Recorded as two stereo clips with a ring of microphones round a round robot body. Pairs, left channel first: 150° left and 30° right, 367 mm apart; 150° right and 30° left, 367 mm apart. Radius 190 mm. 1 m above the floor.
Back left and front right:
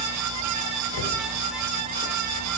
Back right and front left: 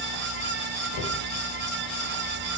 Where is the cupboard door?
175° left, 1.9 m.